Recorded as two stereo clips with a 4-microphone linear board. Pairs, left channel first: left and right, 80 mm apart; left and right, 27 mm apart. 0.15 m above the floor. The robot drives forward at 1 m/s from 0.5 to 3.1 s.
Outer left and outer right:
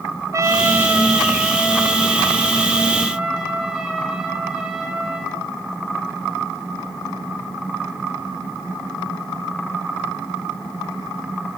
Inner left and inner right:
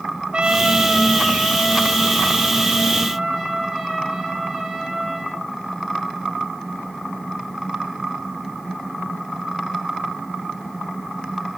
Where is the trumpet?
40° right (ahead or behind), 0.5 m; by 5.4 s 5° right (ahead or behind), 3 m.